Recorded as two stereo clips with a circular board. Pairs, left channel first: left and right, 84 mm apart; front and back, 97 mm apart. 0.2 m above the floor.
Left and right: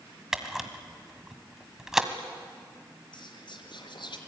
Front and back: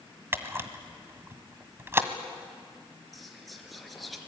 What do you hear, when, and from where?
0.3 s a camera shutter: 165° right, 1.5 m
3.1 s whispering: 90° left, 3.5 m